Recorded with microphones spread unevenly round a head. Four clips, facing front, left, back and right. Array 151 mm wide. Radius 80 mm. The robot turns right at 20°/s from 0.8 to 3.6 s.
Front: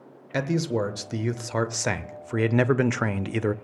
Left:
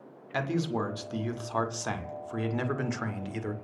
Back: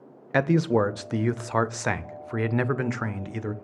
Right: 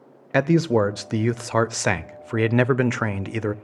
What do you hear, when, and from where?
0.3 s a man speaking: 105° right, 0.6 m; by 3.5 s 50° right, 0.6 m